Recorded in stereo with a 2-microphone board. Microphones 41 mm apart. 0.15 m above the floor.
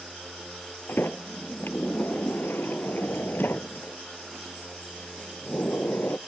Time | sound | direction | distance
0.9 | a sliding door | 60° left (ahead or behind) | ?